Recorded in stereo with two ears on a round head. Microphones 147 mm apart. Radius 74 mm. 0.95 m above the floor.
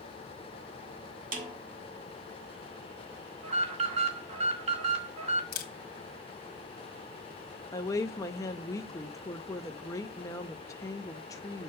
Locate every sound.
1.3 s a snare drum: 50° right (ahead or behind), 1.7 m
3.4 s an alarm: 45° right (ahead or behind), 2 m
5.5 s a camera shutter: 60° left (ahead or behind), 1.5 m
7.7 s a woman speaking: 20° left (ahead or behind), 0.9 m